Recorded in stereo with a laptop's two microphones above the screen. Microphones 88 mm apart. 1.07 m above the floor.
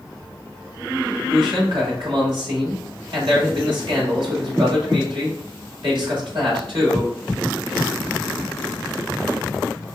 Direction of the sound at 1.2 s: 75° right (ahead or behind).